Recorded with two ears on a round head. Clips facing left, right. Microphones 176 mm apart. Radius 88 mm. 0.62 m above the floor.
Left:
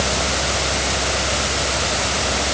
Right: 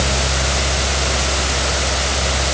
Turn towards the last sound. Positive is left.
No sound to turn to.